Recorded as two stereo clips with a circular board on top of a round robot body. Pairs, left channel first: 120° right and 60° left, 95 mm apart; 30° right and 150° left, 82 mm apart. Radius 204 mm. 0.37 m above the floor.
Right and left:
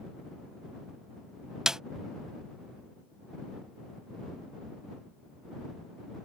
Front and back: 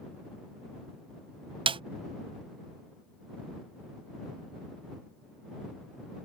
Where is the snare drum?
145° left.